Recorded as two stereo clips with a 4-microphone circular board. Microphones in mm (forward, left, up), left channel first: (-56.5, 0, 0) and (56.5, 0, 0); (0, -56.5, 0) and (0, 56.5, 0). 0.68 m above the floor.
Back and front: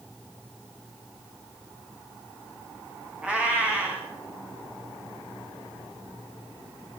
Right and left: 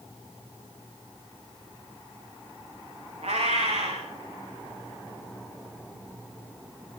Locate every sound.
3.2 s a cat meowing: 80° left, 8 m